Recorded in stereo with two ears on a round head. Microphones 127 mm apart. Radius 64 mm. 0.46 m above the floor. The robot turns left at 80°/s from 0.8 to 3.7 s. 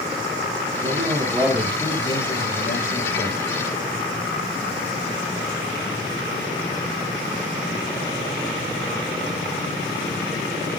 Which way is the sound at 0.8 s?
120° right.